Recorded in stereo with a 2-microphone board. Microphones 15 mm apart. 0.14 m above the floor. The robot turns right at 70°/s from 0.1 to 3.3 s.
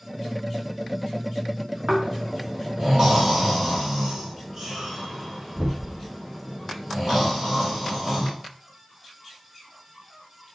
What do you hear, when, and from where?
1.9 s snoring: 50° right (ahead or behind), 5 m; by 8.3 s 30° right (ahead or behind), 5 m